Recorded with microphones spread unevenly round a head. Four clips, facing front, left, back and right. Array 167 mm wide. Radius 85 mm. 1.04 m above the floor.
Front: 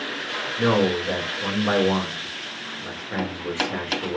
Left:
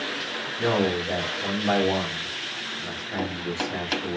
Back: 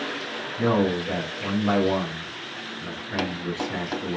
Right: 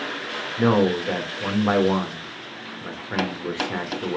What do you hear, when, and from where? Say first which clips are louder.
0.6 s a man speaking: right 5 dB, front 2 dB; 65° right, 3 m